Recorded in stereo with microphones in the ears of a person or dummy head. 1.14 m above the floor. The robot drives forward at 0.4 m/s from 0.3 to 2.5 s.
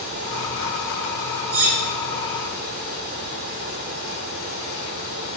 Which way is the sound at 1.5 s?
70° right (ahead or behind).